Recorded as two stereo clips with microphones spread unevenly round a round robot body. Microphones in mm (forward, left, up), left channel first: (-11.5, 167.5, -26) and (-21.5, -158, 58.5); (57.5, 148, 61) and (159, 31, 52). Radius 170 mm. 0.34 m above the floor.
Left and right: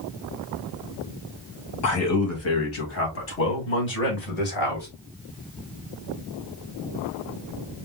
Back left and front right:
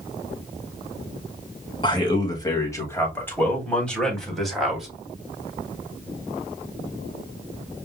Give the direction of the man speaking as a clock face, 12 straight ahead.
10 o'clock.